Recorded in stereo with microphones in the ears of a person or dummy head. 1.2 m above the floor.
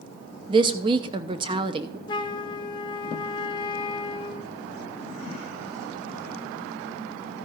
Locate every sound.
0.5 s a woman speaking: 20° right (ahead or behind), 0.6 m
2.1 s a flute: 25° left (ahead or behind), 0.5 m